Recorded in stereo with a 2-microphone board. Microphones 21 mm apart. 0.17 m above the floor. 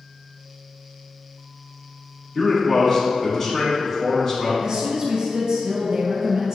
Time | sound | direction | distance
2.4 | a man speaking | 30° left (ahead or behind) | 1.4 m
4.6 | a woman speaking | 30° right (ahead or behind) | 1.4 m